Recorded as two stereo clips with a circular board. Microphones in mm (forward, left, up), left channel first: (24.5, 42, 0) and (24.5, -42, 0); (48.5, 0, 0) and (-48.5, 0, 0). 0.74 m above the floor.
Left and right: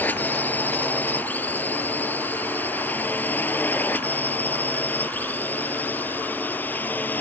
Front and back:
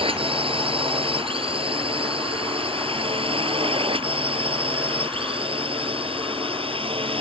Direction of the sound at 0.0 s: 160° left.